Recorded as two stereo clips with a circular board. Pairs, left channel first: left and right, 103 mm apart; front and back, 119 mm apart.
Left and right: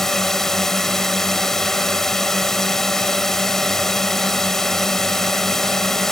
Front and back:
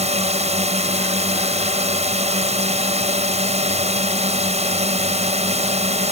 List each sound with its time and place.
0.0 s a drone: 175° left